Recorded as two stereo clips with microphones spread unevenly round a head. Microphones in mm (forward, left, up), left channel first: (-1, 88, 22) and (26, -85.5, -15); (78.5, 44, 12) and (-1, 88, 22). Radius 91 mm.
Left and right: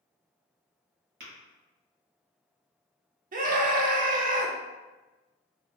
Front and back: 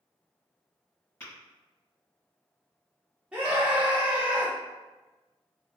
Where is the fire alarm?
No fire alarm in this recording.